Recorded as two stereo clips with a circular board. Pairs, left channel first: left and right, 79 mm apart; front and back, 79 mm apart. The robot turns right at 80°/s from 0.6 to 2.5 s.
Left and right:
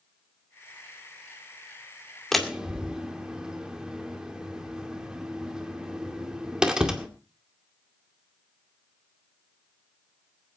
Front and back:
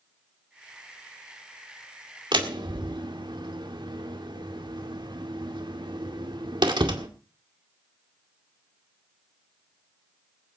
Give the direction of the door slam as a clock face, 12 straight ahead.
6 o'clock.